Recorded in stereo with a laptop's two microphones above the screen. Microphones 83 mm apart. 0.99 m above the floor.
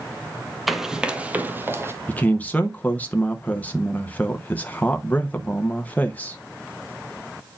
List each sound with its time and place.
0.7 s running footsteps: centre (ahead or behind), 1.1 m; by 1.9 s 30° right (ahead or behind), 1.4 m
2.1 s a man speaking: 20° left (ahead or behind), 0.7 m